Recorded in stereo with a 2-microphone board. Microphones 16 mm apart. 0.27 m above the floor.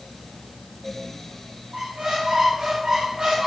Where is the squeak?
70° right (ahead or behind), 2.5 m.